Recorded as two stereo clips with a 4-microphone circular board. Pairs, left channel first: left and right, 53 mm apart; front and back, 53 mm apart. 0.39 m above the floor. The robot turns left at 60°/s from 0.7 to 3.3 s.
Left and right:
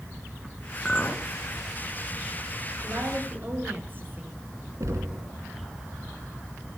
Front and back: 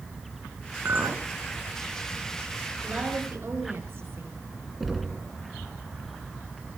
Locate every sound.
0.8 s a clink: 155° left, 3 m; by 1.3 s 130° left, 3 m
2.8 s a woman speaking: 110° right, 6 m; by 4.4 s 140° right, 6 m
4.8 s knocking: 95° right, 3 m